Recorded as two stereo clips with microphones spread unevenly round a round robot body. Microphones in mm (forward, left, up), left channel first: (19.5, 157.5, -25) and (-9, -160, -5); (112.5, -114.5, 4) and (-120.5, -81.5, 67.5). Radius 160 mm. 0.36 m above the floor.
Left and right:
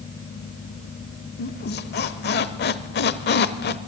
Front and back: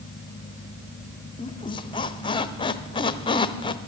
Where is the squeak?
40° left, 0.6 m.